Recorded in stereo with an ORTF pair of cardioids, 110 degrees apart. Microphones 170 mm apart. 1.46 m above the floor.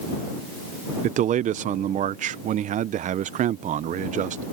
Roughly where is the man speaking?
Ahead right.